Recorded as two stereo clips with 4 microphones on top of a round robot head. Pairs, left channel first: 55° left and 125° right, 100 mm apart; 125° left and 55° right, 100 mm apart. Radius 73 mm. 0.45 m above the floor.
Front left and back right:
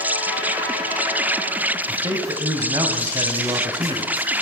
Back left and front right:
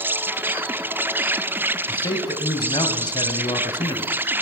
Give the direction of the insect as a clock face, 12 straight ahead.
3 o'clock.